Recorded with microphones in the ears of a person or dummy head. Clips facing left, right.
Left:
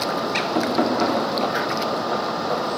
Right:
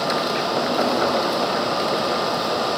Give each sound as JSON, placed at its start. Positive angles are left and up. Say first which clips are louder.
{"t": 0.6, "sound": "knocking", "louder": "left 2 dB", "side_deg": 60, "distance_m": 2.5}